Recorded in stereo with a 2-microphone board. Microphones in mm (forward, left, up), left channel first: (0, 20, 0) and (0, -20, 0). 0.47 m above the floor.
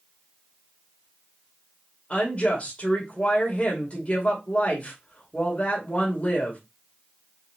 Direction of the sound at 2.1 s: 35° left (ahead or behind).